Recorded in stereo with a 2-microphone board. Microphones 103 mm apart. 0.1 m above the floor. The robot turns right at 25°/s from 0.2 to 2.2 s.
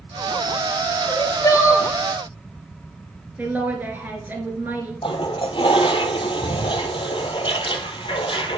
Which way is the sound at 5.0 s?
65° left (ahead or behind).